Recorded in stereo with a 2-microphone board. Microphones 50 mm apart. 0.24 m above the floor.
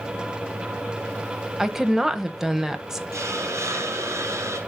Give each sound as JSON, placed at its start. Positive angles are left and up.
{"t": 1.6, "sound": "a woman speaking", "side_deg": -5, "distance_m": 1.0}
{"t": 3.1, "sound": "a hiss", "side_deg": -70, "distance_m": 2.5}